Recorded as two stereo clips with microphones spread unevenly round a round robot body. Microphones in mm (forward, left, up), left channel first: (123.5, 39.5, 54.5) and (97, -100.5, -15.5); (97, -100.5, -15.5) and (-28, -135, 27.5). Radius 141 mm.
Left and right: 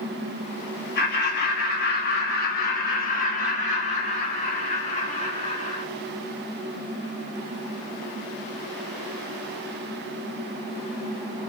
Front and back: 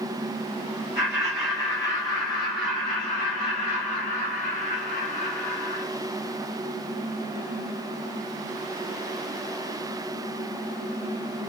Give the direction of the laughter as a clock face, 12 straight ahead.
9 o'clock.